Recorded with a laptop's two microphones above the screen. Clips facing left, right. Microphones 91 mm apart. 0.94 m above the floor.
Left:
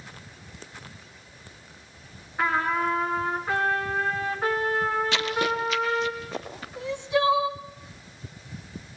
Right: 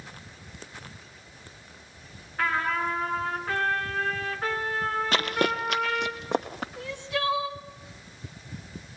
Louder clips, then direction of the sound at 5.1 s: Even; 45° right (ahead or behind).